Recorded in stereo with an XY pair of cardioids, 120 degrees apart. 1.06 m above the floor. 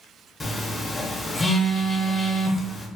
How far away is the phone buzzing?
About 0.6 m.